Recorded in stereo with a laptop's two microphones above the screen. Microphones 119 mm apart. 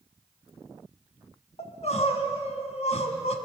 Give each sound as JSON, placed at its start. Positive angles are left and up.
{"t": 1.6, "sound": "crying", "side_deg": 65, "distance_m": 2.0}